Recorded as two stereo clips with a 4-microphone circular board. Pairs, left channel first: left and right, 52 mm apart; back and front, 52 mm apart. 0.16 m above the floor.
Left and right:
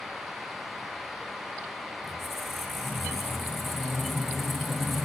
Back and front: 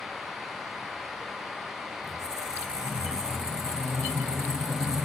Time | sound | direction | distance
2.0 | a squeak | 5° left | 1.5 m